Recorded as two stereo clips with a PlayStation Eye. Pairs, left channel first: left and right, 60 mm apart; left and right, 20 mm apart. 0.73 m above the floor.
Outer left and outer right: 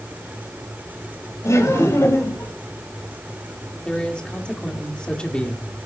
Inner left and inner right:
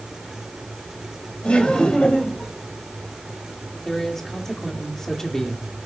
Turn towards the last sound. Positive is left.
turn(degrees=15)  # may be behind; listen again after turning